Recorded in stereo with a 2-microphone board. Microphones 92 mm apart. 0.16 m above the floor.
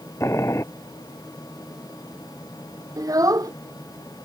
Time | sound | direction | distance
0.2 | boiling | 35° left (ahead or behind) | ?
3.0 | a child speaking | 45° right (ahead or behind) | ?